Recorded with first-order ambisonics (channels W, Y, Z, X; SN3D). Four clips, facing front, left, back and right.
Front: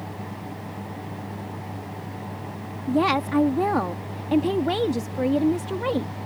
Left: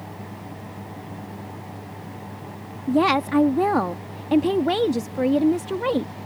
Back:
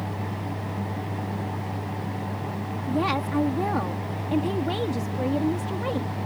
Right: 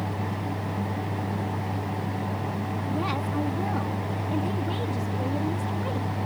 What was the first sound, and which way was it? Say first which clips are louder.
A woman speaking: left 12 dB, front 4 dB; 70° left.